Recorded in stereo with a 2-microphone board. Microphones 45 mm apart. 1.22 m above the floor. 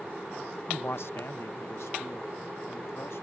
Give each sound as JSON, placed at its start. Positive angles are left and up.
{"t": 0.7, "sound": "a man speaking", "side_deg": 50}